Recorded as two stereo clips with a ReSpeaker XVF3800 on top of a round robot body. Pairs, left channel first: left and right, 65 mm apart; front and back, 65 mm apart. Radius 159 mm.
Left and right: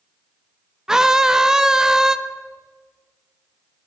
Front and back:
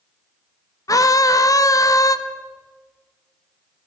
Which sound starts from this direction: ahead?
A scream, at 0.9 s.